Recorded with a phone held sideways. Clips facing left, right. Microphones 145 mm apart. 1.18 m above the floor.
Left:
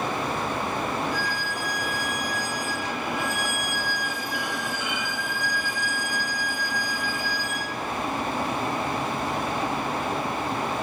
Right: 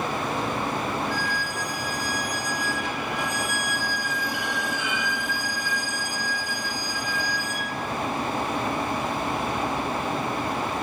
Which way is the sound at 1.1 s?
80° right.